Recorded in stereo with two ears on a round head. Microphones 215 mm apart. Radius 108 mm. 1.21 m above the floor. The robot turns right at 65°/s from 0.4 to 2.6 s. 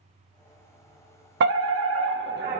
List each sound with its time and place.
1.4 s a fire alarm: 120° right, 1.6 m; by 2.6 s 40° right, 1.6 m